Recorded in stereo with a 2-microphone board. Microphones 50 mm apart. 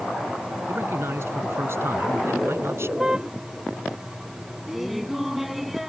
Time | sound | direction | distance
0.7 | a man speaking | 60° right (ahead or behind) | ?
3.0 | a car horn | 15° right (ahead or behind) | ?
4.7 | laughter | 5° right (ahead or behind) | ?